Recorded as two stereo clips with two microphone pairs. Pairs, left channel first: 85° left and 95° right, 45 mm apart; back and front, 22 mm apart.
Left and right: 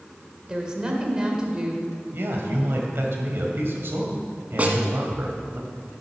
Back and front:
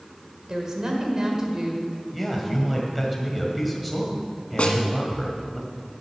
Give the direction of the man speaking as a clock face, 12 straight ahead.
3 o'clock.